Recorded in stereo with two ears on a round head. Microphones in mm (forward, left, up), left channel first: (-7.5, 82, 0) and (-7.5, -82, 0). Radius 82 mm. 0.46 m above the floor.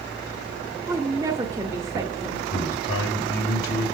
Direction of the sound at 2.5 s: 65° left (ahead or behind).